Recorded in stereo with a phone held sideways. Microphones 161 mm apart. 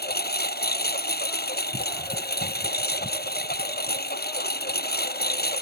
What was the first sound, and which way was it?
A lawn mower, 85° left.